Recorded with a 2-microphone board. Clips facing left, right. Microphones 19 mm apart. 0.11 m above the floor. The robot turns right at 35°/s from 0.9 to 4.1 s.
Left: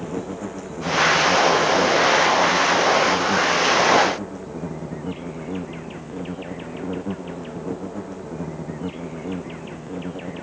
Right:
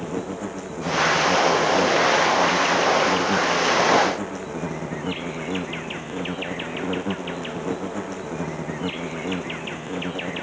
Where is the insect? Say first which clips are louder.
Even; 170° right; by 10.4 s 55° right.